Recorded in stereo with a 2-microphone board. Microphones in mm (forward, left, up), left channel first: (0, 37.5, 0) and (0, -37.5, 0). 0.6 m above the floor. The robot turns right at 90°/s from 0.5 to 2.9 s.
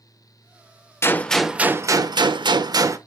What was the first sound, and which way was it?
A gunshot, 145° left.